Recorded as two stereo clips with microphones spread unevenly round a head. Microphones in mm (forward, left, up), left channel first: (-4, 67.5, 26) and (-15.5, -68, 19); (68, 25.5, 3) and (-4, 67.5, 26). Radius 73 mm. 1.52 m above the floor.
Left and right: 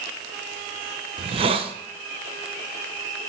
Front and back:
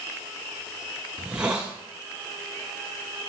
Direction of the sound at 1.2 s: 140° right.